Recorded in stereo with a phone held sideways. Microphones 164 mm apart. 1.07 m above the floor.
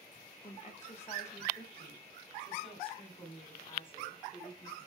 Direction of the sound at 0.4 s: 50° left (ahead or behind).